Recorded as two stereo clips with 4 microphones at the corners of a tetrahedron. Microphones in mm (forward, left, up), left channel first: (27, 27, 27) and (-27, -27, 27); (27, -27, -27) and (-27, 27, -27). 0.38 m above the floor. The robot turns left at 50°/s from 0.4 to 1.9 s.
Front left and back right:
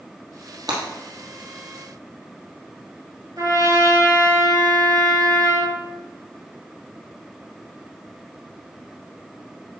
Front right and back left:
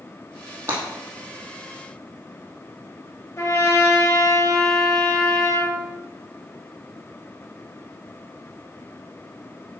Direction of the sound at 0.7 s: 165° right.